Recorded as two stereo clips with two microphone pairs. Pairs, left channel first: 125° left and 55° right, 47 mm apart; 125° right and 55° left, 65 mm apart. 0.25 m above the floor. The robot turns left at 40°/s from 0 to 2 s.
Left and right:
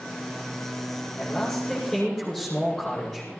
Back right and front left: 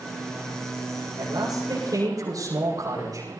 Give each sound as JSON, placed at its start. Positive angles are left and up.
{"t": 1.2, "sound": "a man speaking", "azimuth_deg": 65, "distance_m": 8.0}